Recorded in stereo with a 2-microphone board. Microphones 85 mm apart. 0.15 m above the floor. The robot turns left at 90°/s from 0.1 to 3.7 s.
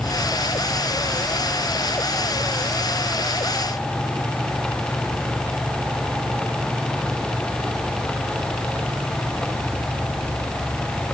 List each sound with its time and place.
Only background noise.